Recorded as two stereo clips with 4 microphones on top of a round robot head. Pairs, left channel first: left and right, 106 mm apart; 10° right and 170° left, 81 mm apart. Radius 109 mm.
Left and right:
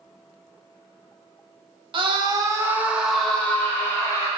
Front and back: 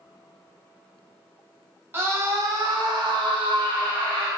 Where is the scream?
130° right, 1.1 m; by 4.3 s 150° left, 1.4 m.